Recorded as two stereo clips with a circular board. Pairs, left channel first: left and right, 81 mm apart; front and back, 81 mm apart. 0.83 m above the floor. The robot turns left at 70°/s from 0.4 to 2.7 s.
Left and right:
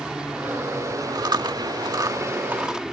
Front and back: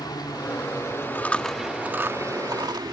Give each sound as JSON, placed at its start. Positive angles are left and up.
{"t": 0.0, "sound": "a helicopter", "azimuth_deg": -10}
{"t": 1.1, "sound": "chewing", "azimuth_deg": -60}